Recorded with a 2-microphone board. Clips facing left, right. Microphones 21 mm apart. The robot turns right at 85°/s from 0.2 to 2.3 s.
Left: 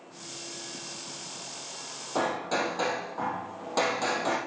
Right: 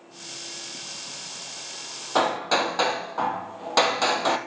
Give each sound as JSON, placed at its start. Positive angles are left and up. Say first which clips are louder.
{"t": 2.1, "sound": "hammering", "louder": "right 6 dB", "side_deg": -60, "distance_m": 0.9}